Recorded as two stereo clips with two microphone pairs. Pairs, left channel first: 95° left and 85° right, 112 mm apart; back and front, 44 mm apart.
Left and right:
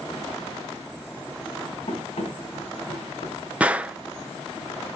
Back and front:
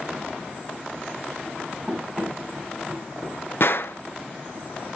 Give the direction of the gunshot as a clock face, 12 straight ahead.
5 o'clock.